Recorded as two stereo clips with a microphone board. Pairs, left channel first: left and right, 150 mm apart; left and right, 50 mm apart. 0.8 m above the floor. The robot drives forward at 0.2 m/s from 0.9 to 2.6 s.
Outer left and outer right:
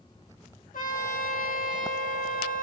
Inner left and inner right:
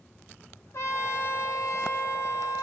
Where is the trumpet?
65° left (ahead or behind), 0.9 m.